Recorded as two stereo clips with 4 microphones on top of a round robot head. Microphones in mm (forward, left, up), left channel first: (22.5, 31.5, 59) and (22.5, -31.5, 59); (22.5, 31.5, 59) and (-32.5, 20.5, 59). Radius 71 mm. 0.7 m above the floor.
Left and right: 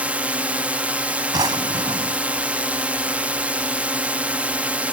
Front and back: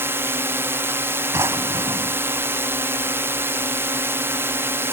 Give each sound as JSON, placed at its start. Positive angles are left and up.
{"t": 0.0, "sound": "a drone", "azimuth_deg": -150}
{"t": 1.3, "sound": "a drawer", "azimuth_deg": -120}